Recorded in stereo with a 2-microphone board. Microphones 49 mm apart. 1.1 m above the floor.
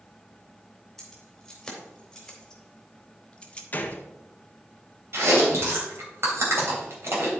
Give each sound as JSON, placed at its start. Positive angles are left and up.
{"t": 1.0, "sound": "keys jangling", "side_deg": 5, "distance_m": 3.0}
{"t": 3.7, "sound": "a gunshot", "side_deg": 35, "distance_m": 0.8}
{"t": 5.1, "sound": "chewing", "side_deg": -60, "distance_m": 3.0}